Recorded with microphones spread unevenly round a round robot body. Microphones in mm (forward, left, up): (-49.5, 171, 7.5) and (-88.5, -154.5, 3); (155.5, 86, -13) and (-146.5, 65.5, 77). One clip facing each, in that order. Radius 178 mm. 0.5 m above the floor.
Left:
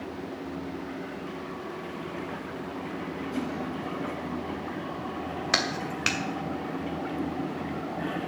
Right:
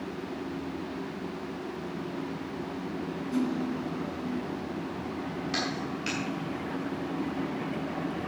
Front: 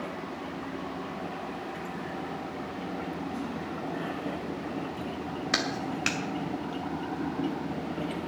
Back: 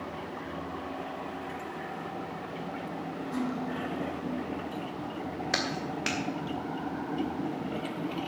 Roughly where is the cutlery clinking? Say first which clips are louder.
Right 5 dB, back 3 dB; behind.